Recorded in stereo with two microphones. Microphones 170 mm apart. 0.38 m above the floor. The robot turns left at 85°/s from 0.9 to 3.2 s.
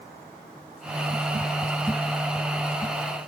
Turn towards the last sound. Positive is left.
No sound to turn to.